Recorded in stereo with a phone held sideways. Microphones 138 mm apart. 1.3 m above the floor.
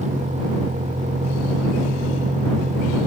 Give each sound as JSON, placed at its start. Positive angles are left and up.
{"t": 0.0, "sound": "a vehicle", "side_deg": -60}